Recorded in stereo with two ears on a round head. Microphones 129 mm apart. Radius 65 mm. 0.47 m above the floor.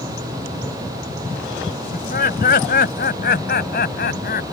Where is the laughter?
60° left (ahead or behind); by 4.4 s 70° left (ahead or behind).